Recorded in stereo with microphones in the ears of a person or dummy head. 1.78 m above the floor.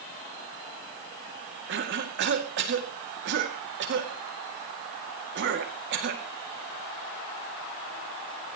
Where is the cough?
60° right (ahead or behind), 2.5 m.